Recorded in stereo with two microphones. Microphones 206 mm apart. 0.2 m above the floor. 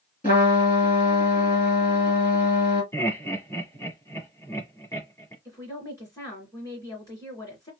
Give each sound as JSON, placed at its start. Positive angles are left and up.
{"t": 0.2, "sound": "a trumpet", "side_deg": 45, "distance_m": 2.5}
{"t": 2.9, "sound": "laughter", "side_deg": 15, "distance_m": 1.3}
{"t": 5.5, "sound": "a woman speaking", "side_deg": 15, "distance_m": 2.0}